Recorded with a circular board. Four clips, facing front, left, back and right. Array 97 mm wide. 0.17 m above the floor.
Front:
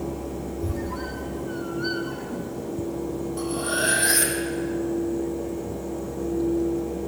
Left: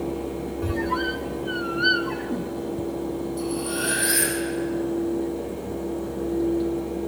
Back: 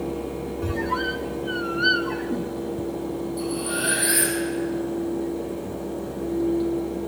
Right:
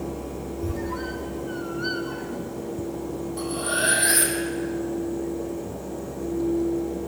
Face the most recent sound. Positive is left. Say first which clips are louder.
# even, front 3 dB
turn(degrees=-45)